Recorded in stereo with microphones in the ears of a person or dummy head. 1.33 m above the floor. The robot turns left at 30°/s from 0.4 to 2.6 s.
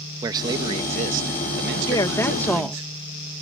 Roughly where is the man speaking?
Ahead right.